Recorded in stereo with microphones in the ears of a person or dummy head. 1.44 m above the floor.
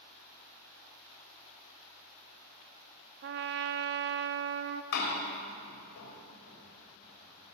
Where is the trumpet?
50° right (ahead or behind), 0.5 m.